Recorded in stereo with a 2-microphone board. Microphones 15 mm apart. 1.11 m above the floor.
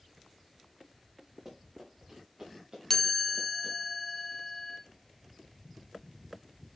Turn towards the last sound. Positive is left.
turn(degrees=30)  # may be behind; listen again after turning